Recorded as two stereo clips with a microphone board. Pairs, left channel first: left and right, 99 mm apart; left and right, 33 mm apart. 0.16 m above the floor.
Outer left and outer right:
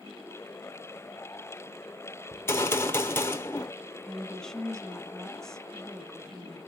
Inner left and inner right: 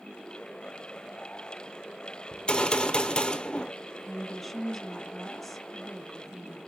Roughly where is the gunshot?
Left.